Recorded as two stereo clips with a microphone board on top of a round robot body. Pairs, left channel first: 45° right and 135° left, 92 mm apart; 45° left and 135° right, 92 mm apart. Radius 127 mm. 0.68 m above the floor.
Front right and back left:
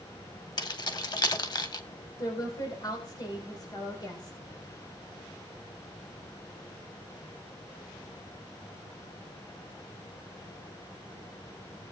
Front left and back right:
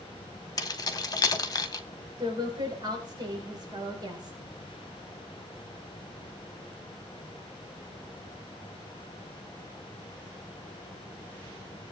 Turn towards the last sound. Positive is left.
turn(degrees=-90)